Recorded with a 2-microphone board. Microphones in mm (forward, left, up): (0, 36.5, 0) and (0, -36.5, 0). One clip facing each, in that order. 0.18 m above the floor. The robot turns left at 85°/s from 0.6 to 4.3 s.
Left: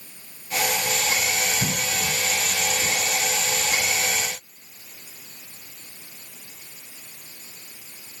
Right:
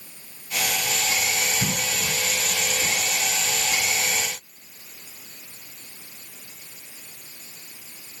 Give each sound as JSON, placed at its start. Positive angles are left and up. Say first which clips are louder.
{"t": 1.6, "sound": "a cough", "louder": "left 1 dB", "side_deg": -20, "distance_m": 1.5}